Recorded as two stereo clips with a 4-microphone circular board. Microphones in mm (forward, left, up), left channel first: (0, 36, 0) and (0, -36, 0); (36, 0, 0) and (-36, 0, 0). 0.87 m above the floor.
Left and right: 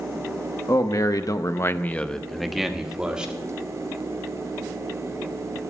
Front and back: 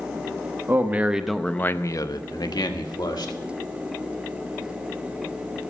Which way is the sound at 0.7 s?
125° left.